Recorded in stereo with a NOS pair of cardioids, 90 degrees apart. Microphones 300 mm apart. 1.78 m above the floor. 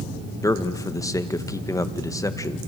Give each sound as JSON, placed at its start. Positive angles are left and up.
{"t": 0.4, "sound": "a man speaking", "azimuth_deg": 10, "distance_m": 2.0}